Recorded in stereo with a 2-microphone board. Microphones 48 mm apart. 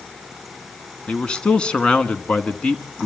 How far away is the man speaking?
About 1.1 m.